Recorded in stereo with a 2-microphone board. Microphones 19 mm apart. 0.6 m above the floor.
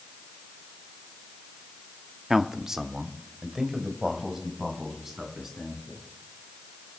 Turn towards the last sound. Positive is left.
turn(degrees=-25)  # may be behind; listen again after turning